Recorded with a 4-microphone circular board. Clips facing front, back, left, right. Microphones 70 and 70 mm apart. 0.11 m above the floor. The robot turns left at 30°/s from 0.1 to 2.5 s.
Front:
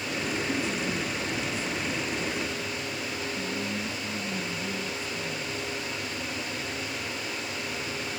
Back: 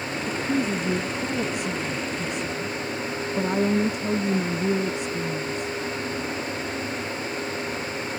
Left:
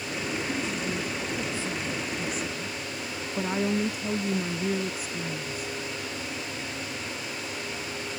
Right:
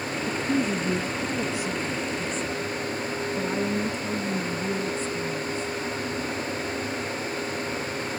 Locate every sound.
0.3 s a woman speaking: 125° right; by 5.8 s 170° left